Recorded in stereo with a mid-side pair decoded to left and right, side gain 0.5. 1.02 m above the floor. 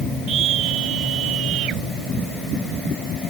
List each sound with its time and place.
0.3 s a scream: 70° right; by 1.8 s 75° right